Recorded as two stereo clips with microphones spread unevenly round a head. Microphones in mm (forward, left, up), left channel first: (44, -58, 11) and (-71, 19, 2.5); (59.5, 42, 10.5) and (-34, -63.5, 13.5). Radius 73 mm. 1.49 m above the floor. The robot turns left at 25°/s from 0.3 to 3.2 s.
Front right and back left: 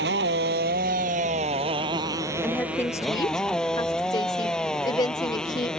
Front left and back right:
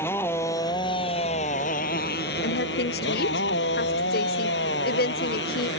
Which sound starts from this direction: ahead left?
A woman speaking, at 2.4 s.